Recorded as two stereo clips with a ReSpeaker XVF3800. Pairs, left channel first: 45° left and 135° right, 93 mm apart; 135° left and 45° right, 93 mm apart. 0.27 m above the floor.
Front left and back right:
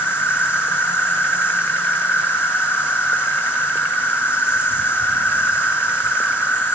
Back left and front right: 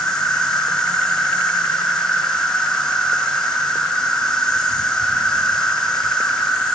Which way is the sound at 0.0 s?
60° left.